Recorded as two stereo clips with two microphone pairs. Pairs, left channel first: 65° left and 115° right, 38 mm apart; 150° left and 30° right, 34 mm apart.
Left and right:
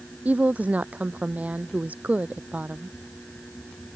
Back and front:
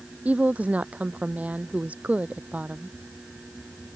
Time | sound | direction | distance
0.2 | a woman speaking | 75° right | ?